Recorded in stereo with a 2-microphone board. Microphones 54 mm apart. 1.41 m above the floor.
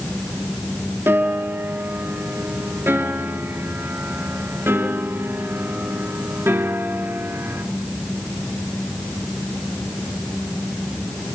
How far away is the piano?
About 3.5 m.